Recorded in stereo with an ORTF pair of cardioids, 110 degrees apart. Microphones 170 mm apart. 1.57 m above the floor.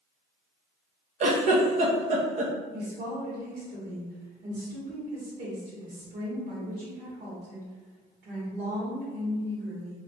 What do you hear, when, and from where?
1.2 s a giggle: 45° right, 1.0 m
2.7 s a woman speaking: 65° right, 1.9 m